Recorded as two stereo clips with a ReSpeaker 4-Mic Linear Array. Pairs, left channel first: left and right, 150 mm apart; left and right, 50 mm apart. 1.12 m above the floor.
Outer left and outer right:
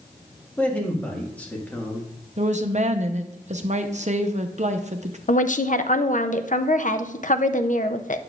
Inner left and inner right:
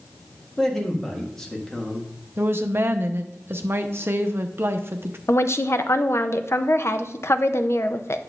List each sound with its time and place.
0.6 s a man speaking: 10° left (ahead or behind), 1.6 m
2.4 s a woman speaking: 55° right (ahead or behind), 0.7 m
5.3 s a woman speaking: 60° left (ahead or behind), 0.5 m